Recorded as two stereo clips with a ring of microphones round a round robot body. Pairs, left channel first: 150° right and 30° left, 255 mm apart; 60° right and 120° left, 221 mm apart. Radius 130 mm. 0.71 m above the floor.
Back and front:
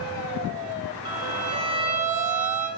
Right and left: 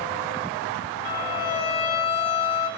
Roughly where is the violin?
Ahead right.